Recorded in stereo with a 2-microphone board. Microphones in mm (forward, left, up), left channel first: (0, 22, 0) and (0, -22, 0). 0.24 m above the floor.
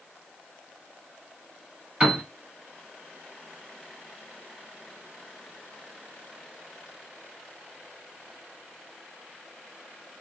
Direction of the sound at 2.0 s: 20° right (ahead or behind).